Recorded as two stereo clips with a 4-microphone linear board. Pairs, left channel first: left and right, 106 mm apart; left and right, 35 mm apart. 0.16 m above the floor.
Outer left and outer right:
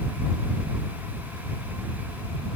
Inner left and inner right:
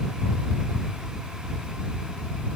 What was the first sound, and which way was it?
Only background noise.